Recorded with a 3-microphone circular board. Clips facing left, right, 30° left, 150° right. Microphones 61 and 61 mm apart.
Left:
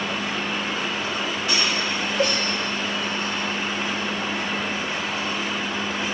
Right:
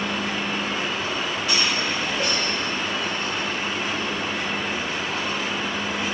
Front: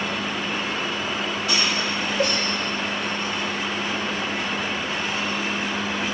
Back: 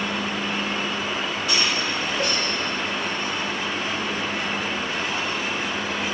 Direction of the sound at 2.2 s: 80° left.